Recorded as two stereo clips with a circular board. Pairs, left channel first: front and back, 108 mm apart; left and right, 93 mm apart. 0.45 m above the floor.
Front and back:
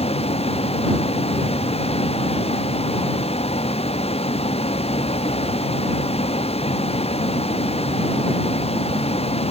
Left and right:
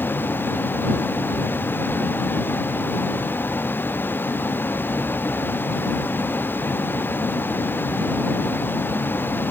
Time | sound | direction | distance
0.0 | a vehicle | 25° left | ?